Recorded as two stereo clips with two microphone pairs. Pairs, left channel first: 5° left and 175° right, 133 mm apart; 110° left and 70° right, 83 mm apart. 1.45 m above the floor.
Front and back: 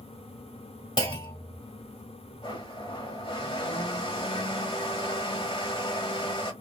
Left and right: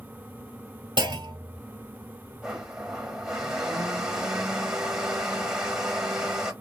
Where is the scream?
No scream in this recording.